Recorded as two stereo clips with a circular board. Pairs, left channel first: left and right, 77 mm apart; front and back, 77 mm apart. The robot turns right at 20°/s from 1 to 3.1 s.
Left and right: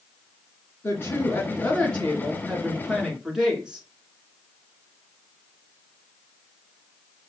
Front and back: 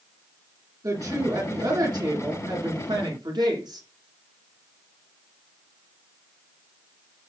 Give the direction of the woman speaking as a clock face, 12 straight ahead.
7 o'clock.